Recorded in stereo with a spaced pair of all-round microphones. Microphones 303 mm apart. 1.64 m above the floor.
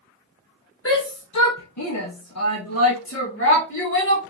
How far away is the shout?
About 0.9 m.